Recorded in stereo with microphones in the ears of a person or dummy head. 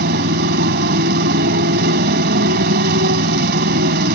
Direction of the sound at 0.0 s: 55° right (ahead or behind).